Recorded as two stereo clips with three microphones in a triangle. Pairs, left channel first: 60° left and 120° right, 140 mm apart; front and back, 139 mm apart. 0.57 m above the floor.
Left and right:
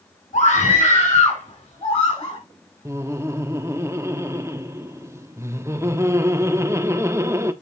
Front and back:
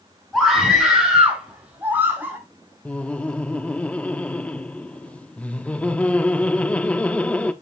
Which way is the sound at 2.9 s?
70° right.